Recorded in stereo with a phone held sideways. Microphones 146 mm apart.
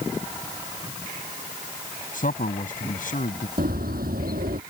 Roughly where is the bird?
Right.